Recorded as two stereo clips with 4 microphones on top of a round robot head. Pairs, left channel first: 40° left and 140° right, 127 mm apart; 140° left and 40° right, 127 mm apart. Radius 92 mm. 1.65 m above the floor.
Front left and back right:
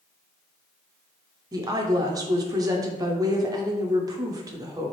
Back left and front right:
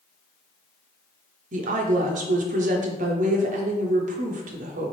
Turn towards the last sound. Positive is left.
turn(degrees=-75)